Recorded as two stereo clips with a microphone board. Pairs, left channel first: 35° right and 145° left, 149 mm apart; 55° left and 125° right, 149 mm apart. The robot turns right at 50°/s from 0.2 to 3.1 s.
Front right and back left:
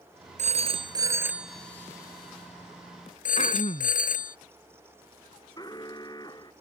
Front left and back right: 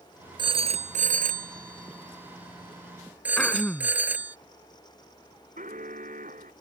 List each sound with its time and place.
0.4 s a phone ringing: straight behind; by 4.4 s 45° right
3.4 s throat clearing: 25° right
5.6 s an alarm: 95° right